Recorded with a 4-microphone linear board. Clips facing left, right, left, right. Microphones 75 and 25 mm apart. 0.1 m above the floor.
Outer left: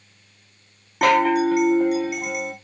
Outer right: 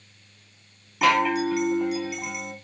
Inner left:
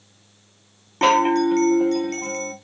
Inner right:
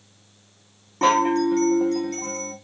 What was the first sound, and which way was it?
A chime, 50° left (ahead or behind).